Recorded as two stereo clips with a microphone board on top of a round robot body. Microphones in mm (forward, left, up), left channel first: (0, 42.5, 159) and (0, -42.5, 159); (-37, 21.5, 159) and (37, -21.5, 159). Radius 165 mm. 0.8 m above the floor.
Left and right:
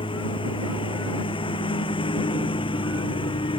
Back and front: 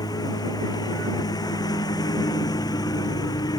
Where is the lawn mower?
105° left.